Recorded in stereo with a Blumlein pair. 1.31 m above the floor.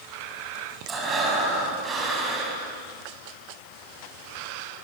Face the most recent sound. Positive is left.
turn(degrees=-20)